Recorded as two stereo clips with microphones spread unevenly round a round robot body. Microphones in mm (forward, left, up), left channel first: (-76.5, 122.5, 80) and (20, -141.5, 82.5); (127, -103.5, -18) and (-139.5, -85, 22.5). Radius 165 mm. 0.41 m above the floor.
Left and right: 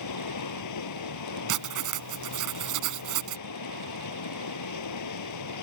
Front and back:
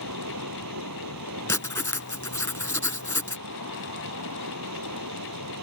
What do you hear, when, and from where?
0.0 s running water: 130° left
1.5 s writing: 85° right